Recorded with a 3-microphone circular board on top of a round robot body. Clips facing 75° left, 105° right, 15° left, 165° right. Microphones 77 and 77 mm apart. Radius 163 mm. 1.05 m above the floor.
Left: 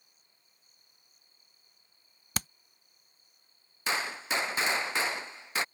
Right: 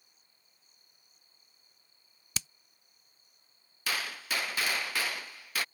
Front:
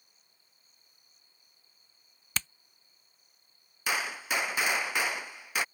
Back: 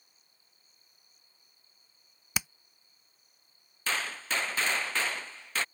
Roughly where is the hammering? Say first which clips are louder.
Left 6 dB, back 1 dB; behind left.